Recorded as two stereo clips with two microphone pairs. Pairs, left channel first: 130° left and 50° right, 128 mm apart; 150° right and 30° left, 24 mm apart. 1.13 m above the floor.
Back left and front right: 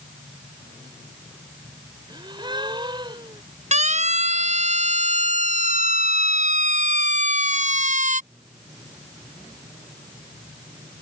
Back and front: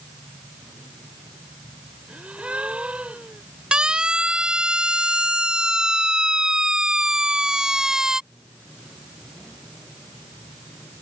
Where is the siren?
25° right; by 8.2 s 35° right.